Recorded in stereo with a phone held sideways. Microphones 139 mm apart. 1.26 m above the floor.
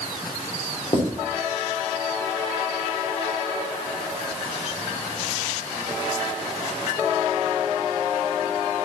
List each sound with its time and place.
0.9 s writing: 45° left (ahead or behind), 3 m